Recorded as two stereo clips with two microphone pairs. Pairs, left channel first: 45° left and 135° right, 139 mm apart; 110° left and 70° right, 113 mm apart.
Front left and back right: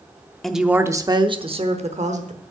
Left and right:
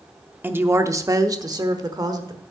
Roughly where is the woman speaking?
Ahead right.